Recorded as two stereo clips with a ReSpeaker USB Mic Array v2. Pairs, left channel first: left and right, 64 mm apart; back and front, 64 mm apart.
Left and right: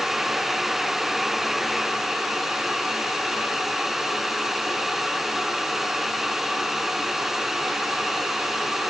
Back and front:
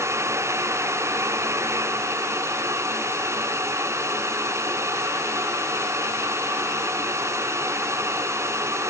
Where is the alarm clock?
I don't hear an alarm clock.